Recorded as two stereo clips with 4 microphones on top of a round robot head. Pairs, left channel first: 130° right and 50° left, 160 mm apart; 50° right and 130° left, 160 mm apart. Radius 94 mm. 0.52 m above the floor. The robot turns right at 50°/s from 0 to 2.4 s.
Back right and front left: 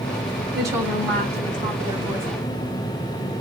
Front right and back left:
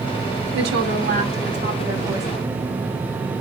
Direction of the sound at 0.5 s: 115° left.